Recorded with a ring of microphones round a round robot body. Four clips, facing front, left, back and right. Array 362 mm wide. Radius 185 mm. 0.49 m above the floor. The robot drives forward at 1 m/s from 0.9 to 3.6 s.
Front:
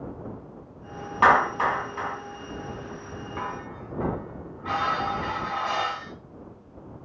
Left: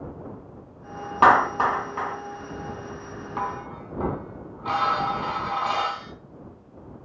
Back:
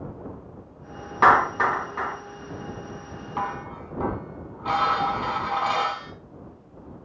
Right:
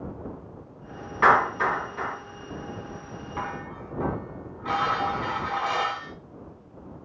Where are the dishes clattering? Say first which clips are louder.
Left 4 dB, back 5 dB; 145° left, 3 m.